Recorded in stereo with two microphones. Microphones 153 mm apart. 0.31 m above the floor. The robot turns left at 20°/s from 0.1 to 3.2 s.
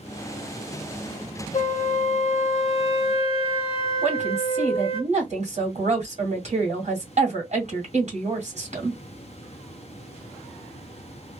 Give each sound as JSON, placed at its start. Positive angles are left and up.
{"t": 1.5, "sound": "a flute", "azimuth_deg": 85, "distance_m": 0.5}
{"t": 4.0, "sound": "a woman speaking", "side_deg": -50, "distance_m": 1.8}